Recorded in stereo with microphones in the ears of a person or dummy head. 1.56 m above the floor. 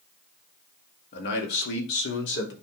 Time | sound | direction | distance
1.1 | a man speaking | 60° left (ahead or behind) | 2 m